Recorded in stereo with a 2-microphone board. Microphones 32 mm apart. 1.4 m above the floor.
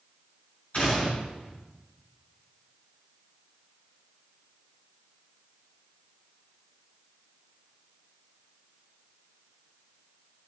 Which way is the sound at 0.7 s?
40° left (ahead or behind).